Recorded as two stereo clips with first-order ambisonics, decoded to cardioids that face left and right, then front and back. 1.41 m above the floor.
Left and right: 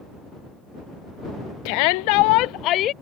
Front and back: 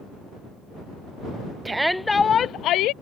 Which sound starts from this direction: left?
A shout, at 1.6 s.